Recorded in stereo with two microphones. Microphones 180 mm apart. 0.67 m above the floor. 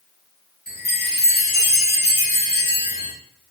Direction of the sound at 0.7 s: 60° left (ahead or behind).